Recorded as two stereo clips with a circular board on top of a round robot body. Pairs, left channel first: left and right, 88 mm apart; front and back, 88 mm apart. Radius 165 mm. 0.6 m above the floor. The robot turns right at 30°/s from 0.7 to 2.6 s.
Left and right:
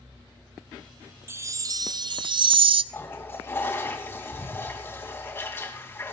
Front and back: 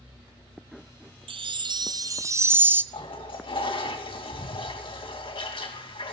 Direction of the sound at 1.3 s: 150° right.